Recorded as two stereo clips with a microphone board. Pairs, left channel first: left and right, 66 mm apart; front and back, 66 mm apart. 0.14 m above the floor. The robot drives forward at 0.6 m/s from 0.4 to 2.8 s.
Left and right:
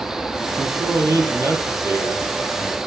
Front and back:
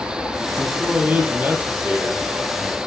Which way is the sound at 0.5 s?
110° right.